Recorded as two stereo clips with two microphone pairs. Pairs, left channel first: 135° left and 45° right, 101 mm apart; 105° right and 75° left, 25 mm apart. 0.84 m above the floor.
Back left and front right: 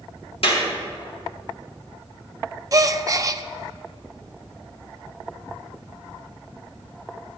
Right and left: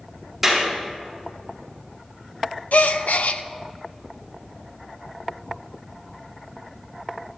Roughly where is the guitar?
No guitar in this recording.